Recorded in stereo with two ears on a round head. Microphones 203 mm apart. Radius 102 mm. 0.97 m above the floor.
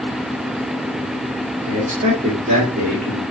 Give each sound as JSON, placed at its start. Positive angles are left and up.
{"t": 1.6, "sound": "a man speaking", "side_deg": -35, "distance_m": 1.8}